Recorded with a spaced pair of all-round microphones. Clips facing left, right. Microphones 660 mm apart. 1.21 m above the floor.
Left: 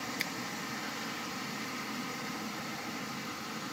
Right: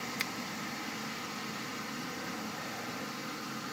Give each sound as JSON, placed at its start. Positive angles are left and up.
{"t": 0.2, "sound": "a finger snap", "side_deg": -40}